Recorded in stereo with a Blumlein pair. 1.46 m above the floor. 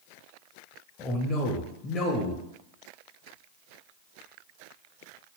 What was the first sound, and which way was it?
A man speaking, 20° left.